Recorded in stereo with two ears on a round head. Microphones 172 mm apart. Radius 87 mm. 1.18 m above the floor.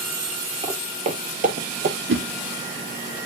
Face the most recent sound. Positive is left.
turn(degrees=-75)  # may be behind; listen again after turning